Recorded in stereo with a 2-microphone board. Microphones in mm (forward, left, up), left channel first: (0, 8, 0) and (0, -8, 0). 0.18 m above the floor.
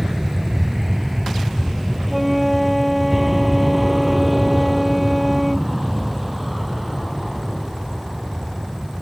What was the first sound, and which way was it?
An aircraft, 25° right (ahead or behind).